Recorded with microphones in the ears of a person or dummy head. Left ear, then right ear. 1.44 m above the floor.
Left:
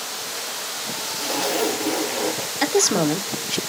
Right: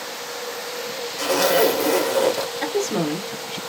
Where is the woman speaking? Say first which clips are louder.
Left 7 dB; 85° left, 0.7 m.